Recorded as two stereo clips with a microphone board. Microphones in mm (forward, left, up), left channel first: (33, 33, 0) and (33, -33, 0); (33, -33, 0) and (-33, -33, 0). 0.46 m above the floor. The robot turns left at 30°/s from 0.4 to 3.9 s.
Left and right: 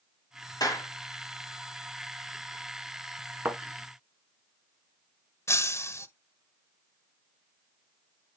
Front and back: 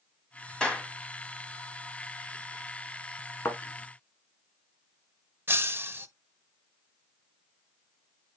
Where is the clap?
75° left, 2 m; by 0.9 s 65° left, 2 m.